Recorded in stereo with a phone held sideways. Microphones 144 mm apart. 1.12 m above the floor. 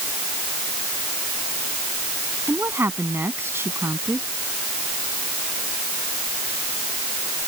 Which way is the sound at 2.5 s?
15° right (ahead or behind).